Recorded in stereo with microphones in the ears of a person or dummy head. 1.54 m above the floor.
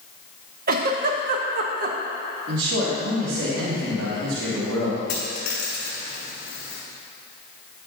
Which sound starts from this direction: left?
A dropped coin, at 5.1 s.